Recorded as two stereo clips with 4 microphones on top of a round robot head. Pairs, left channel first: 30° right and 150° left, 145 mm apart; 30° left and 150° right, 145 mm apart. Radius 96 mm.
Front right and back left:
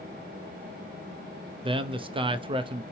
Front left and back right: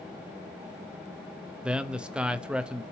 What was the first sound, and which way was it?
A man speaking, 135° left.